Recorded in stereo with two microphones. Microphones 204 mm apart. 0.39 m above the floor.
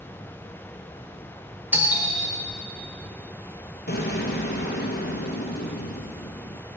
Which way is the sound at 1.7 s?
10° right (ahead or behind).